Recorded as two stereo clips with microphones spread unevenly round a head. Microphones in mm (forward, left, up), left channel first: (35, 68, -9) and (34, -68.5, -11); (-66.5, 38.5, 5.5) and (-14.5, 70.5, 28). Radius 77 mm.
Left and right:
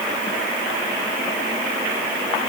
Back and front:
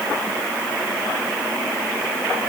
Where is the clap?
No clap in this recording.